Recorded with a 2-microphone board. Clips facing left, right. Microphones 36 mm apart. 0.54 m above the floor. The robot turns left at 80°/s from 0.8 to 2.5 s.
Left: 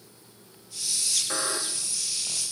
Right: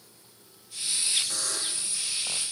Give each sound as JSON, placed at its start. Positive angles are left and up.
{"t": 1.3, "sound": "a buzzer", "azimuth_deg": 40}